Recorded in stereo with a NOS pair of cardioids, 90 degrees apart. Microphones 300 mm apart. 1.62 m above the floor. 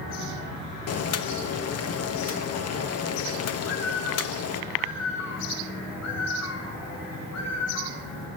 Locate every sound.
0.9 s boiling: 55° left, 0.9 m
3.6 s a bird: 60° left, 3 m